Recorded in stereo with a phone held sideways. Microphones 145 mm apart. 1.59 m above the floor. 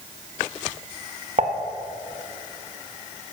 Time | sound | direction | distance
1.4 | dishes clattering | 55° right (ahead or behind) | 1.2 m